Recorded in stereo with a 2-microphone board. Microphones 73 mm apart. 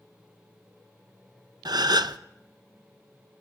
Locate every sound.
1.6 s a gasp: 75° right (ahead or behind), 0.6 m